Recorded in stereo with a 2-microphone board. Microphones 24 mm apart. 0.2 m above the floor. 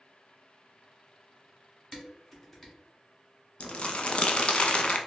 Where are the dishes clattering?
10° left (ahead or behind), 1.4 m.